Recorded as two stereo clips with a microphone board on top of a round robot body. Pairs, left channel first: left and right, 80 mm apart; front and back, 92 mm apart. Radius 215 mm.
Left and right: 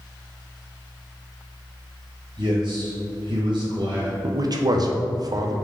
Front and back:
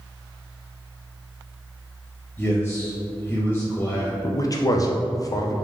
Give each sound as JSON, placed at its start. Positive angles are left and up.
{"t": 2.4, "sound": "a man speaking", "azimuth_deg": -70, "distance_m": 1.1}
{"t": 4.2, "sound": "a man speaking", "azimuth_deg": -50, "distance_m": 0.6}